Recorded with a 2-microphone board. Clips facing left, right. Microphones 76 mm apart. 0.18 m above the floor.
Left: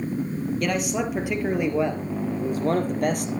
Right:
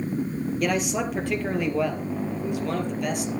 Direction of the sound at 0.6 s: Centre (ahead or behind).